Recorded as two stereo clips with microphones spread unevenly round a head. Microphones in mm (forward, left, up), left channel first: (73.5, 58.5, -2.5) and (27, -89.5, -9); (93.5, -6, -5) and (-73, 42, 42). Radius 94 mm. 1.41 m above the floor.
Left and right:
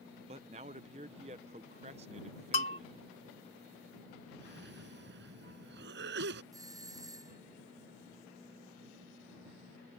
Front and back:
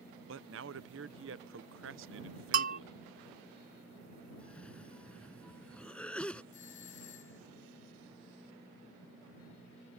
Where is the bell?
125° left.